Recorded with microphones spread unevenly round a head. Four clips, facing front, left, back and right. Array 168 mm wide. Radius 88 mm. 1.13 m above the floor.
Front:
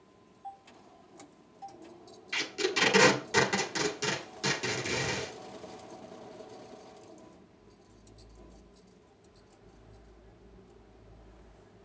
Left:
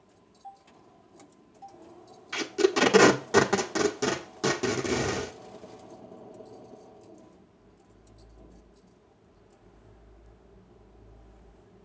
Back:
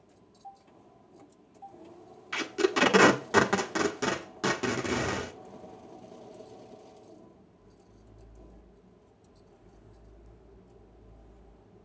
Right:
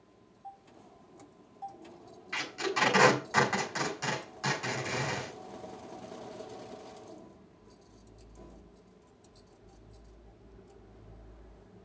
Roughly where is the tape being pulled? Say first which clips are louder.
Left 9 dB, back 5 dB; behind left.